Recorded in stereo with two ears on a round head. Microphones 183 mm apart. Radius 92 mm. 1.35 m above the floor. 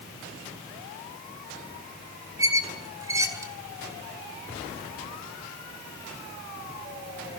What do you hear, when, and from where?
2.4 s a squeak: 15° right (ahead or behind), 2 m